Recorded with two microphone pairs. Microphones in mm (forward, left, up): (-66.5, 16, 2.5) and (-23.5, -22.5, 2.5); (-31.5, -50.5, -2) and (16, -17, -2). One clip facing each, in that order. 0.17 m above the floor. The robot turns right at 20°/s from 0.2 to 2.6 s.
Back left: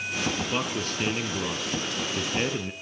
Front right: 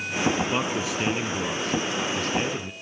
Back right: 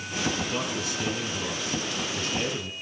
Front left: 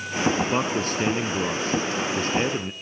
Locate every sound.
0.4 s a man speaking: 30° left, 1.5 m; by 2.7 s 70° left, 1.5 m